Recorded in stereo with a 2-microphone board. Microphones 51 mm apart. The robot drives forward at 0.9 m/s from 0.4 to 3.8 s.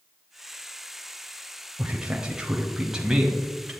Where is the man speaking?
15° right (ahead or behind), 0.9 m; by 3.7 s 10° right (ahead or behind), 1.7 m.